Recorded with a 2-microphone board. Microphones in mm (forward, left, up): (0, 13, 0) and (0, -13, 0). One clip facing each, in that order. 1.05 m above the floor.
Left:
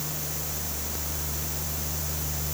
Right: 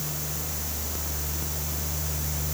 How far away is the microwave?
No microwave in this recording.